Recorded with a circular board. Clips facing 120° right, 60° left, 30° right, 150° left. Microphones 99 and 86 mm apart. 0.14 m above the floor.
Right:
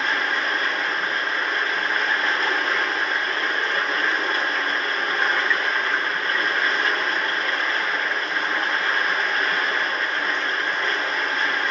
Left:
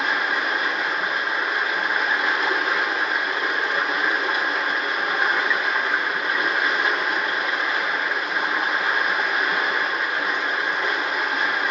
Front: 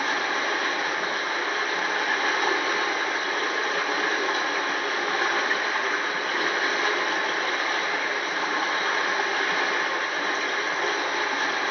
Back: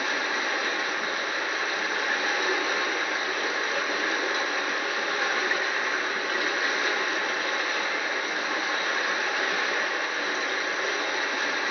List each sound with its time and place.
0.0 s running water: 20° right, 5 m